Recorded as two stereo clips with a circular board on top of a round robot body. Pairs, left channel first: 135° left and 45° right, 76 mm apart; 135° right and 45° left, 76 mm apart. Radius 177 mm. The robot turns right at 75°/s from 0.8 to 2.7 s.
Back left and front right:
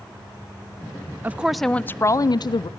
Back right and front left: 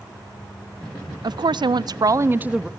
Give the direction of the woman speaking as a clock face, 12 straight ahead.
11 o'clock.